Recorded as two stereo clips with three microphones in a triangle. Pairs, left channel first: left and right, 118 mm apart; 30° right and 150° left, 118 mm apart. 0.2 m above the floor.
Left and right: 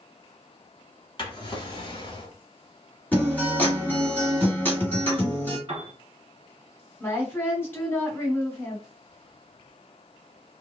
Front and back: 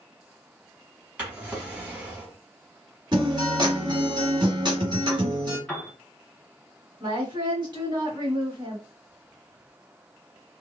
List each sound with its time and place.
1.2 s a drawer: 80° left, 1.0 m
3.1 s a guitar: 150° left, 1.2 m
5.7 s a piano: 115° right, 0.9 m
7.0 s a woman speaking: 150° left, 1.4 m